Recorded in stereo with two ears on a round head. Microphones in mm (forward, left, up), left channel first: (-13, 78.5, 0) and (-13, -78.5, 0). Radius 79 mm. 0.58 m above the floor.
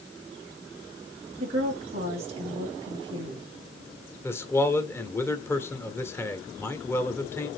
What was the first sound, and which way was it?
A woman speaking, 40° right (ahead or behind).